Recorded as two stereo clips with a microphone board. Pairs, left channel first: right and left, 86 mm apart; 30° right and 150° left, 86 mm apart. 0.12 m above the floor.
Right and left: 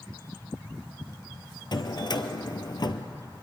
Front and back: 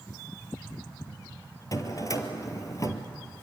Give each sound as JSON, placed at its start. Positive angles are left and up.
{"t": 1.7, "sound": "a drawer", "azimuth_deg": -70, "distance_m": 1.4}